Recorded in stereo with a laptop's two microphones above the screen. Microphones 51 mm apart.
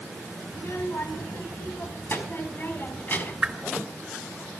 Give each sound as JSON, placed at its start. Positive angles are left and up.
{"t": 0.5, "sound": "a child speaking", "side_deg": 60, "distance_m": 4.5}
{"t": 3.4, "sound": "a whoosh", "side_deg": -20, "distance_m": 2.5}